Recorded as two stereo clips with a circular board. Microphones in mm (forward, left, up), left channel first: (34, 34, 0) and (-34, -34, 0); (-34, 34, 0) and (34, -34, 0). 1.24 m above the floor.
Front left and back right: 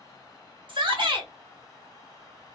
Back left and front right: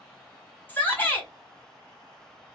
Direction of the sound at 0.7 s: 160° right.